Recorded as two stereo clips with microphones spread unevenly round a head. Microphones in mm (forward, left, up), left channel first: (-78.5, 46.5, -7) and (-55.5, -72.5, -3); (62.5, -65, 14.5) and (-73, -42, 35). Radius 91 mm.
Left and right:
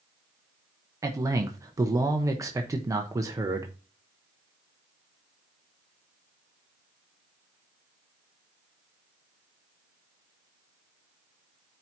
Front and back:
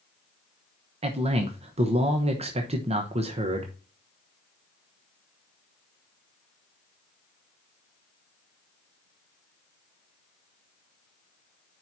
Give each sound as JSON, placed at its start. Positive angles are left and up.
{"t": 1.0, "sound": "a man speaking", "azimuth_deg": -145, "distance_m": 1.0}